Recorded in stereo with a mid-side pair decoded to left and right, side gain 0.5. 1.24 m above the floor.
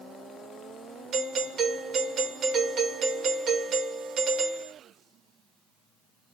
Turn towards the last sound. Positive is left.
turn(degrees=-55)